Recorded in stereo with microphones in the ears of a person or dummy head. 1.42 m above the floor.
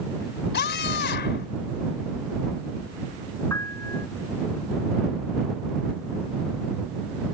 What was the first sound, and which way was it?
A scream, 55° left (ahead or behind).